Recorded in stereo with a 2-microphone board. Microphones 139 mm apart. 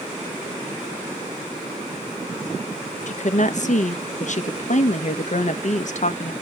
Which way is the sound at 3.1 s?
60° left (ahead or behind).